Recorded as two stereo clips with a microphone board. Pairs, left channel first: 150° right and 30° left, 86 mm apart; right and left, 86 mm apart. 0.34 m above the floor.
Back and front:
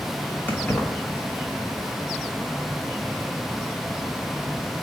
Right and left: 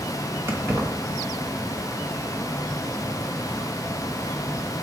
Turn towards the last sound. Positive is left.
turn(degrees=145)